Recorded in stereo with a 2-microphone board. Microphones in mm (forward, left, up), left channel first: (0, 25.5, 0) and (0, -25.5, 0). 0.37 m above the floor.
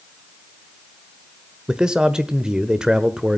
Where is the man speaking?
15° right (ahead or behind), 1.1 m.